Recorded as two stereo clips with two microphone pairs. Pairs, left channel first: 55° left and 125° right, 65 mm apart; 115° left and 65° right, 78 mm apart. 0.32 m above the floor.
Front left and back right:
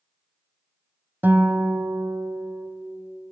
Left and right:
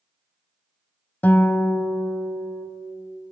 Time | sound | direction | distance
1.2 | a guitar | straight behind | 0.9 m